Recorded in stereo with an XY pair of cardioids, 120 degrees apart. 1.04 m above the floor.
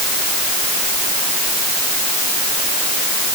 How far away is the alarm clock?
I don't hear an alarm clock.